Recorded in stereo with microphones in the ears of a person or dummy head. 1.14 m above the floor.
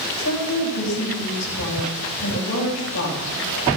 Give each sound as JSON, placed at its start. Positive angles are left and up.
{"t": 0.2, "sound": "a woman speaking", "side_deg": 85, "distance_m": 5.0}